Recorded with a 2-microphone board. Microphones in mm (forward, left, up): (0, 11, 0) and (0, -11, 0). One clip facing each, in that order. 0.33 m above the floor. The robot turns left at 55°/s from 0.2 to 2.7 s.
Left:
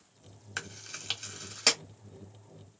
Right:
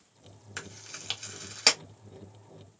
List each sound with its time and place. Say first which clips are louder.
0.6 s chewing: left 2 dB; 10° left (ahead or behind), 1.0 m; by 1.8 s 30° right (ahead or behind), 1.0 m